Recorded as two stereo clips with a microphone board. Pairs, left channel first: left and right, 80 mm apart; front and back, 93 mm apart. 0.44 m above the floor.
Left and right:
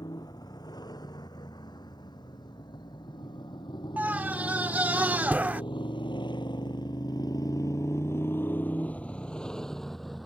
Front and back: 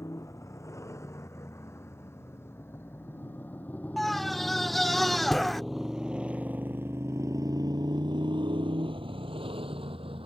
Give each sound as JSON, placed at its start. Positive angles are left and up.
{"t": 0.0, "sound": "a motorcycle", "azimuth_deg": 55}
{"t": 4.0, "sound": "a scream", "azimuth_deg": -85}